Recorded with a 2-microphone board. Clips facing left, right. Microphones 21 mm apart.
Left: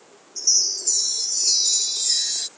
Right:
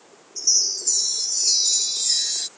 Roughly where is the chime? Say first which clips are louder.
Even; centre.